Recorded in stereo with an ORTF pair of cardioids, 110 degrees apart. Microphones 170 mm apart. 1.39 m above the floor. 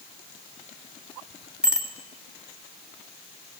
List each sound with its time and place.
1.6 s a bicycle bell: 5° right, 3 m